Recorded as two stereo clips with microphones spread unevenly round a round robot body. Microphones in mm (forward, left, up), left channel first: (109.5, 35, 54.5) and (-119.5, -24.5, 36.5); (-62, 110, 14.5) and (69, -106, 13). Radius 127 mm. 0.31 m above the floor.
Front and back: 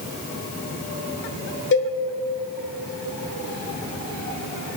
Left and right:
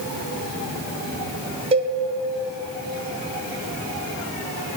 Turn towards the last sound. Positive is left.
turn(degrees=0)